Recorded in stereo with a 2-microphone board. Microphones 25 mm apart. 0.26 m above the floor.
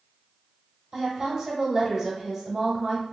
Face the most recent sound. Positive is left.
turn(degrees=-20)  # may be behind; listen again after turning